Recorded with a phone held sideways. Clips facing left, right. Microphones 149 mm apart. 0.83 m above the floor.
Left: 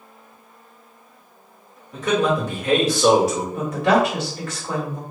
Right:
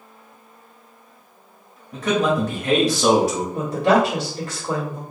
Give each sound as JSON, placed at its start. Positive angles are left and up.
{"t": 1.9, "sound": "a man speaking", "side_deg": -60, "distance_m": 1.7}
{"t": 3.5, "sound": "a woman speaking", "side_deg": -35, "distance_m": 1.8}